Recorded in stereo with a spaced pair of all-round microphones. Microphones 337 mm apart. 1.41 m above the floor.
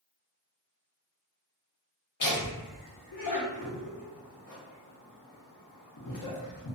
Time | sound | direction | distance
2.2 | laughter | 60° left (ahead or behind) | 0.6 m